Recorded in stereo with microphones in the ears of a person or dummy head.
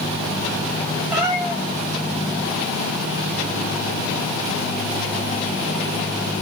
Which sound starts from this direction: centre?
A cat meowing, at 1.1 s.